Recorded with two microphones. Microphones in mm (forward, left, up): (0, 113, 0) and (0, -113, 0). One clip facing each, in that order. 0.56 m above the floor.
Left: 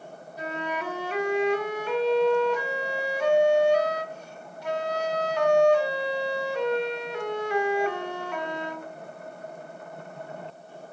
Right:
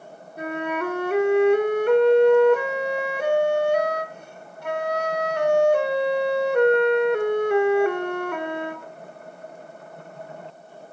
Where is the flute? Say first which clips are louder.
Right 6 dB; 55° right (ahead or behind), 0.8 m.